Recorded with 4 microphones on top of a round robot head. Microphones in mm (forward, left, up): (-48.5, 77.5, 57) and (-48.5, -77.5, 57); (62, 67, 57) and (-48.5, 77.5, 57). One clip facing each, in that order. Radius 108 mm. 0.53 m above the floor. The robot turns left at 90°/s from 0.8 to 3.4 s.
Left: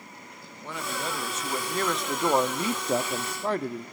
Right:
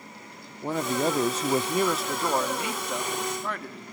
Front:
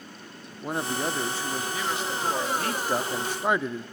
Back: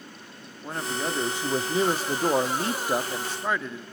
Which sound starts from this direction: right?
A man speaking, at 0.6 s.